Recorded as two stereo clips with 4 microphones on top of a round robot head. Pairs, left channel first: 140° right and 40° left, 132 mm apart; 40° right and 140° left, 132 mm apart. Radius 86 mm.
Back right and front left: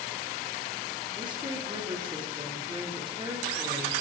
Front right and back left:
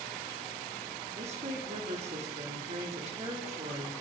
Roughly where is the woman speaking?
Left.